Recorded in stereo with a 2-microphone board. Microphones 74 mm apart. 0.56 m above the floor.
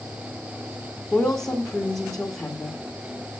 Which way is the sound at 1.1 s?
10° left (ahead or behind).